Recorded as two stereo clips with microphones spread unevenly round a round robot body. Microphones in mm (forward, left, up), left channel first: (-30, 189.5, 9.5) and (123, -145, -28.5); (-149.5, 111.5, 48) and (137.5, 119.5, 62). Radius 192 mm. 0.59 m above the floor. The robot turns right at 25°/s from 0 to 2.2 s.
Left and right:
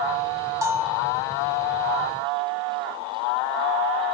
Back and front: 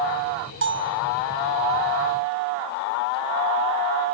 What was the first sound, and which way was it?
A bell, 5° left.